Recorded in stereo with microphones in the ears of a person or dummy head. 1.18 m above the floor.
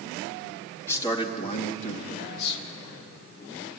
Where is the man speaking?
10° left (ahead or behind), 2 m; by 2.6 s 65° left (ahead or behind), 2 m.